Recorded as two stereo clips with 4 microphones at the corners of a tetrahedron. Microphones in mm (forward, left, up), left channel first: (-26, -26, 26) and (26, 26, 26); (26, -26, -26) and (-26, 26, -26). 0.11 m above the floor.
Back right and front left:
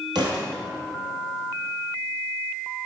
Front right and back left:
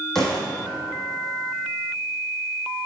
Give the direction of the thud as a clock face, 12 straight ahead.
11 o'clock.